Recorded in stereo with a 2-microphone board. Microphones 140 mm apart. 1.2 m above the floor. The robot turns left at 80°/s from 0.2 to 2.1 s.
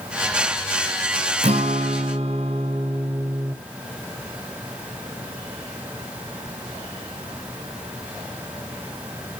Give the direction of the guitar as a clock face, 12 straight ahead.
2 o'clock.